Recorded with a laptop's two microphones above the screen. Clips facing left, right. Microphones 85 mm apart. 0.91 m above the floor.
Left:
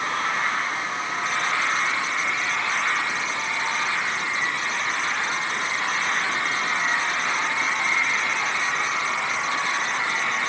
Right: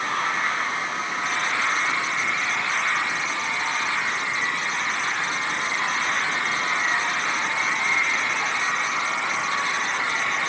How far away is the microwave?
No microwave in this recording.